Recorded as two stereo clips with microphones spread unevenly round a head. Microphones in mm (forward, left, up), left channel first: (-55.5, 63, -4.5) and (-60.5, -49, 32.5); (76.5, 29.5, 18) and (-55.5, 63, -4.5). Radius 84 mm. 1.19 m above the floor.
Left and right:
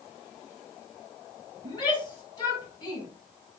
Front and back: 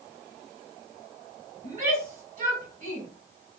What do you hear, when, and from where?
1.6 s a shout: 140° left, 6 m